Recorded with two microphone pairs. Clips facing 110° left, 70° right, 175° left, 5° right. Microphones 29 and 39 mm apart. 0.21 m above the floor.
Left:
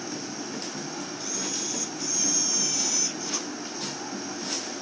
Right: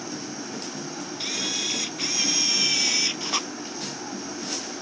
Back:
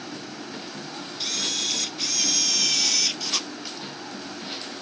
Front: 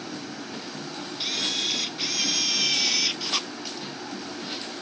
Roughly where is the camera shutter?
Right.